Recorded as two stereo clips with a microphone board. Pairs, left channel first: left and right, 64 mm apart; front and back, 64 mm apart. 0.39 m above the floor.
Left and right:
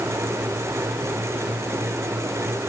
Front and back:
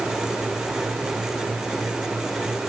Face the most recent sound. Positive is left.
No sound to turn to.